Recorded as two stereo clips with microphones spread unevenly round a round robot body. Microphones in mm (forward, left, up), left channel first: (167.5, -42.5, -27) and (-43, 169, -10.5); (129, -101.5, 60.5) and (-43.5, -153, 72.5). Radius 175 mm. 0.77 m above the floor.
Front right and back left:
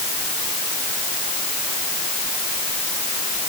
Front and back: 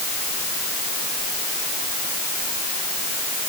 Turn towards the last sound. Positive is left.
No sound to turn to.